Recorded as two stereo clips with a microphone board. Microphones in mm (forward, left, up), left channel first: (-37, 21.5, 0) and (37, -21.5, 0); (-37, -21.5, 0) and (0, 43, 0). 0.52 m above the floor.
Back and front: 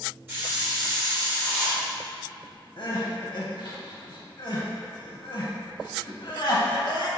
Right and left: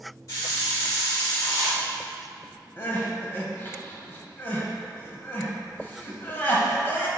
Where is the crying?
Straight behind, 0.6 m.